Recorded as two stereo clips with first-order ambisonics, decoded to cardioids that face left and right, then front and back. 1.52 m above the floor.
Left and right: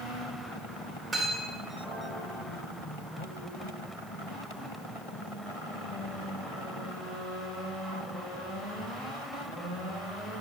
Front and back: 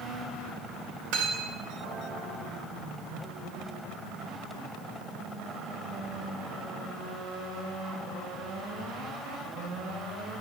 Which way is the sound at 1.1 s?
Straight behind.